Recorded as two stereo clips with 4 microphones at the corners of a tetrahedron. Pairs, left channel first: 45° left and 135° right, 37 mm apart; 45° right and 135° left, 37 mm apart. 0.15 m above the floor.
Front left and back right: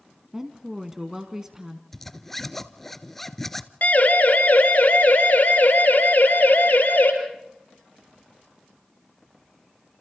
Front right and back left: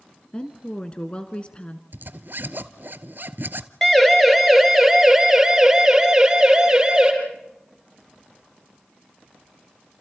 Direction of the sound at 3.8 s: 35° left.